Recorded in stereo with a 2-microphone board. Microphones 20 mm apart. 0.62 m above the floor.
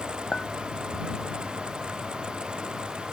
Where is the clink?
60° left (ahead or behind).